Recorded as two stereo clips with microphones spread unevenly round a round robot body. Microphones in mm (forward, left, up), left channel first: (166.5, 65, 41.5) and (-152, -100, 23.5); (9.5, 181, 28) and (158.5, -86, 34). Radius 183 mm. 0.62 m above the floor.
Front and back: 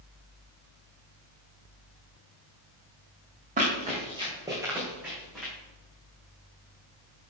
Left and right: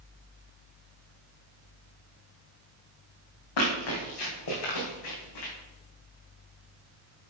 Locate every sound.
3.6 s running footsteps: 135° left, 3 m; by 5.5 s 115° left, 3.5 m